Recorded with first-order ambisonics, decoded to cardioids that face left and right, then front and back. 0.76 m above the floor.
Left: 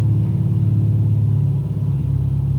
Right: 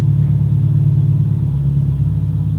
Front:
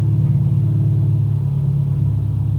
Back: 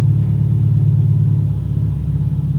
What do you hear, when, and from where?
0.0 s an engine running: 125° right, 4 m